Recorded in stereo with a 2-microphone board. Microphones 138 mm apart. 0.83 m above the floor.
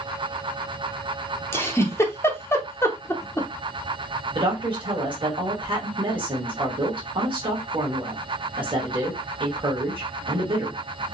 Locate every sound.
1.5 s a giggle: 20° left (ahead or behind), 0.6 m
4.3 s a woman speaking: 35° right (ahead or behind), 1.2 m